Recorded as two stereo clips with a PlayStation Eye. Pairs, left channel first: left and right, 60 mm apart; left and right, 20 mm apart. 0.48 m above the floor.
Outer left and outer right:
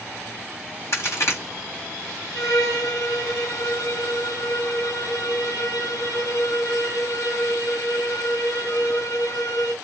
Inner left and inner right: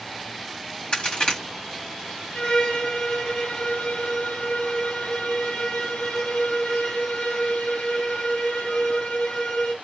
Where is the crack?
55° left (ahead or behind), 2.5 m.